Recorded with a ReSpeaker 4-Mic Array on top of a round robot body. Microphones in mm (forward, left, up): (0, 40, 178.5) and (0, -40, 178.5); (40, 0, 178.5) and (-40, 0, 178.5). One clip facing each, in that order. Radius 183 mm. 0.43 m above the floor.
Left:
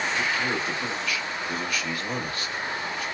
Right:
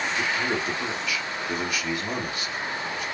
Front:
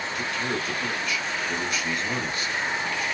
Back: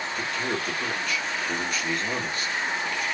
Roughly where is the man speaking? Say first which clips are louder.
Even, even; behind right.